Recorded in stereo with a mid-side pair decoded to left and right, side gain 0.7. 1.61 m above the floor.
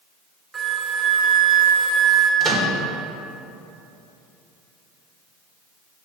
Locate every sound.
0.5 s a flute: 15° right, 1.0 m
2.4 s a microwave: 35° right, 1.6 m